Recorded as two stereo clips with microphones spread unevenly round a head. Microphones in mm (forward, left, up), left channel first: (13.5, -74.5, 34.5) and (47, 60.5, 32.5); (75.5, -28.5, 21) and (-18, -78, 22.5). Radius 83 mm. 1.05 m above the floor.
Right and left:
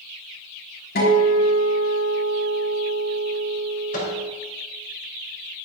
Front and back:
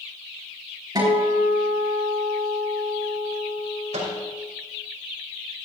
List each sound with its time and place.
0.9 s a guitar: 100° right, 5 m
3.9 s a microwave: 145° right, 3 m